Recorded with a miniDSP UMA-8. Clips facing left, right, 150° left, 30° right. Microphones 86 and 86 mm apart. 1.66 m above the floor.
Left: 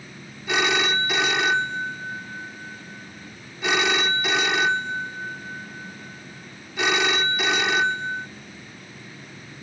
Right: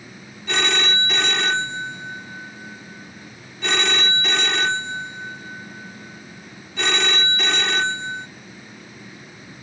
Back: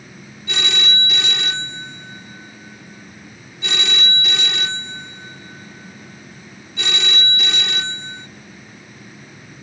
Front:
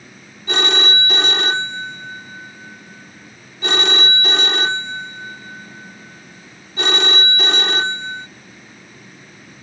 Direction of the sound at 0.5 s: 5° left.